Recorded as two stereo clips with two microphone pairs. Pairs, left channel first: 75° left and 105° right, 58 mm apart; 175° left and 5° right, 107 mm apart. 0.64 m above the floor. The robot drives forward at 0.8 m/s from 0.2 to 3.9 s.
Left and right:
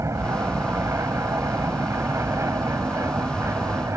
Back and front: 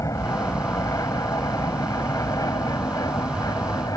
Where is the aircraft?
125° right; by 4.0 s 130° right.